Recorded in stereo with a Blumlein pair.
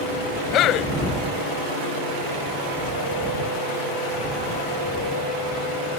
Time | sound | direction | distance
0.5 | a man speaking | 35° left | ?